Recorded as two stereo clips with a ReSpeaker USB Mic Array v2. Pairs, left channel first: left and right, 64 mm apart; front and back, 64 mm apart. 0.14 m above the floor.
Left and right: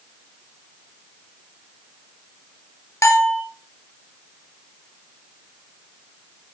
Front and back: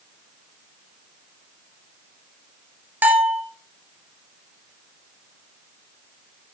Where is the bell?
125° left, 2 m.